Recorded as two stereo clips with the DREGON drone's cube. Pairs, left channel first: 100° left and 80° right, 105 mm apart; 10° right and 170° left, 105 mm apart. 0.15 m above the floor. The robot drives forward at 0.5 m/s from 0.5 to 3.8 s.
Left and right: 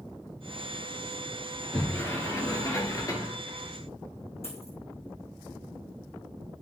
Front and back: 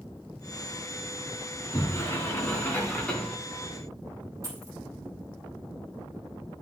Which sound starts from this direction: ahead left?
A sliding door, at 1.5 s.